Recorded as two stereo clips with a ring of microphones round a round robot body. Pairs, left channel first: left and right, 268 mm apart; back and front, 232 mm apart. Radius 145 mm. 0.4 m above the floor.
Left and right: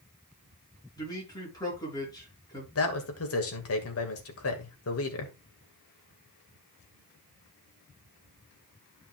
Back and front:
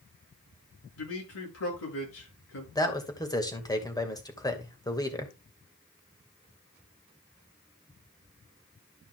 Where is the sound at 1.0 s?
165° left, 6.5 m.